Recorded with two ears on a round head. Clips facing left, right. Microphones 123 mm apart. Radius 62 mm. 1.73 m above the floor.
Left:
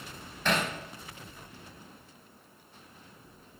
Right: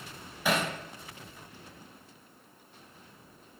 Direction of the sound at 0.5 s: 10° right (ahead or behind).